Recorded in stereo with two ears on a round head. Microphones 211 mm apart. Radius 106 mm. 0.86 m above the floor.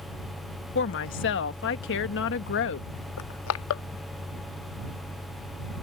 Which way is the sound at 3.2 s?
65° left (ahead or behind).